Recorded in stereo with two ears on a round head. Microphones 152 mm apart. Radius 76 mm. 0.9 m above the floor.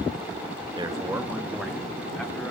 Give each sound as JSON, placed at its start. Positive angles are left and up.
{"t": 0.8, "sound": "a man speaking", "side_deg": -25, "distance_m": 0.9}